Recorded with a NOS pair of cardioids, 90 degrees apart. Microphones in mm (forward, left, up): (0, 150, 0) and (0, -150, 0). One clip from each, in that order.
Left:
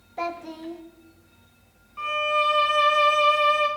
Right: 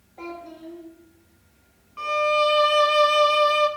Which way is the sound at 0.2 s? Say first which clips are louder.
Left 6 dB; 70° left.